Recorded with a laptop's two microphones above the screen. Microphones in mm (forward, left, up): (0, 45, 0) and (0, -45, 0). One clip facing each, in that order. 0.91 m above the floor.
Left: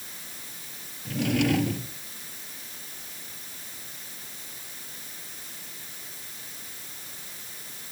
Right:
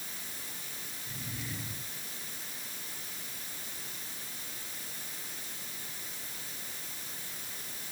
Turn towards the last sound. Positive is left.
turn(degrees=85)